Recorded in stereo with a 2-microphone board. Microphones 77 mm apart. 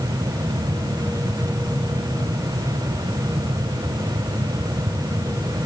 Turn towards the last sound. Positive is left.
No sound to turn to.